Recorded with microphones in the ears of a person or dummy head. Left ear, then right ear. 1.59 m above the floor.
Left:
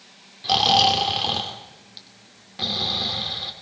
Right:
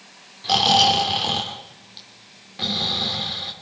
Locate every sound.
0.4 s snoring: 5° left (ahead or behind), 2.5 m